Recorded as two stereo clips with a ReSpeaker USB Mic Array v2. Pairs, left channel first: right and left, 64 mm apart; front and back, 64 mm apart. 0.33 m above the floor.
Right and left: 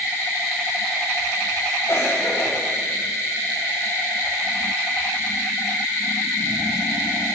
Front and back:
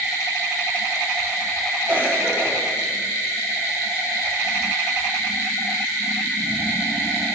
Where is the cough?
125° right, 5 m.